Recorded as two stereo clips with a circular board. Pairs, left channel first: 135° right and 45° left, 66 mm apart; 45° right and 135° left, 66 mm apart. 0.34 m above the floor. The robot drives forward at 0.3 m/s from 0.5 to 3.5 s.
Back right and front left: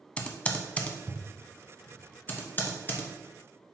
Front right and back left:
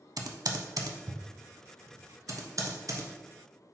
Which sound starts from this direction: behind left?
Typing on a keyboard, at 0.2 s.